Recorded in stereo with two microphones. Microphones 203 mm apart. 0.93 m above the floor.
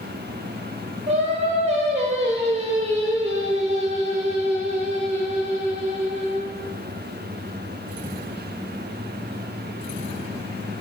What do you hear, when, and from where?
1.1 s singing: 35° right (ahead or behind), 0.9 m